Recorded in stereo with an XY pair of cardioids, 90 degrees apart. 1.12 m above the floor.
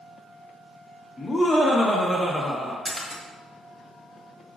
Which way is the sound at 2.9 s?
5° right.